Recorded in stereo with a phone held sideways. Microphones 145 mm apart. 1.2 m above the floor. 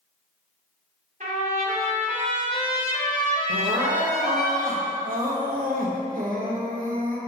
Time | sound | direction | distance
1.2 | a trumpet | 60° right (ahead or behind) | 1.9 m
3.5 | crying | 75° right (ahead or behind) | 0.9 m